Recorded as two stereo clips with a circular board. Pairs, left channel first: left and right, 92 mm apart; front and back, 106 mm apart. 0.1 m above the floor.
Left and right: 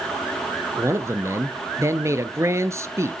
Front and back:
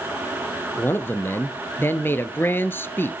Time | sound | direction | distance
0.8 | a man speaking | 55° right | 1.7 m